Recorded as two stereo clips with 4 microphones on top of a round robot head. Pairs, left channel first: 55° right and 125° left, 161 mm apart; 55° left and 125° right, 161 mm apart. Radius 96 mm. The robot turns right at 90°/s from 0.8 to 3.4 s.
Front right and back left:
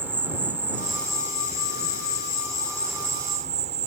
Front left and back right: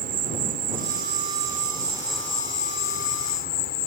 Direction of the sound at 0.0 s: 155° right.